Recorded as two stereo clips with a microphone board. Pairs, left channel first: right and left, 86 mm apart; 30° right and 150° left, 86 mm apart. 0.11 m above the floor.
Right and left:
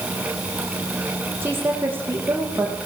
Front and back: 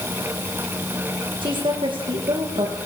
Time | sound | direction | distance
1.4 | a woman speaking | 155° left | 6.5 m